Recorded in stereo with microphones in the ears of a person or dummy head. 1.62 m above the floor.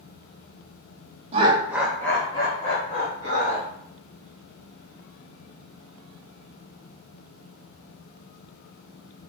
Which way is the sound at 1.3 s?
30° right (ahead or behind).